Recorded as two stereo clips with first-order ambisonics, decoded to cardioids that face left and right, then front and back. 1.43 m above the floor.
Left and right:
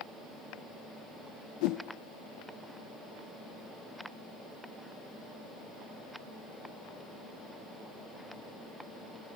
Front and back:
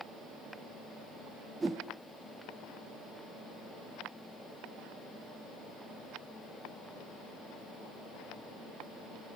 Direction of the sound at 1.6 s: 100° left.